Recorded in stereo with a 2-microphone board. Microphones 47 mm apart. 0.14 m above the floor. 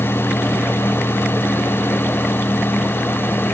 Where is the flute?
No flute in this recording.